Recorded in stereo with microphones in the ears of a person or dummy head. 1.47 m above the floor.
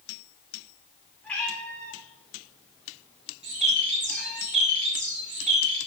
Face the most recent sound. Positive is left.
turn(degrees=-35)  # may be behind; listen again after turning